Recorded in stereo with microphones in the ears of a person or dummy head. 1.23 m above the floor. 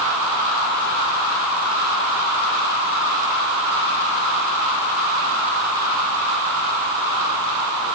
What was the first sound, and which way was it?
Only background noise.